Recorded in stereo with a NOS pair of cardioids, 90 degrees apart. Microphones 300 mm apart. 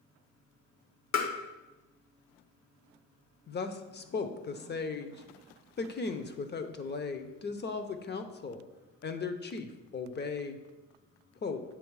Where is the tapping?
65° left, 1.2 m.